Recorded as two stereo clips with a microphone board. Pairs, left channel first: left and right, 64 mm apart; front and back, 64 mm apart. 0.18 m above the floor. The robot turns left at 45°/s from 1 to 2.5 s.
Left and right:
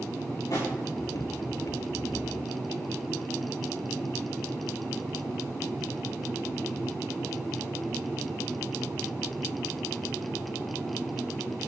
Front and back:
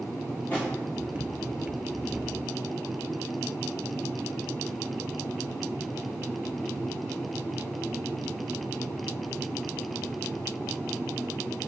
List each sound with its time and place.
0.5 s a drawer: 70° left, 6 m